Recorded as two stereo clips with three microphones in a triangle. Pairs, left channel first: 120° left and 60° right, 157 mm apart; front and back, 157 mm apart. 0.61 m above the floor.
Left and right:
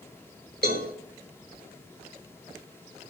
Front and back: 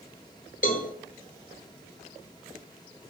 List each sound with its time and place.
0.6 s a cowbell: 40° right, 1.5 m